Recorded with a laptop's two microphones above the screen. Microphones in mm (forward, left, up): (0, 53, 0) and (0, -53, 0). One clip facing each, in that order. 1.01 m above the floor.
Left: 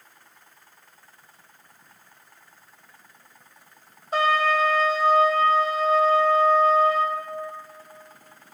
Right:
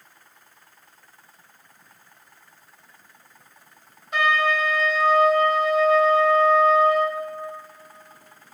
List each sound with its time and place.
4.1 s a trumpet: 35° left (ahead or behind), 0.8 m